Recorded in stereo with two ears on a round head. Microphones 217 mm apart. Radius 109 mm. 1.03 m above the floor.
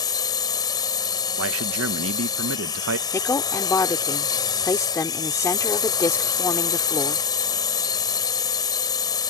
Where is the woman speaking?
15° left (ahead or behind).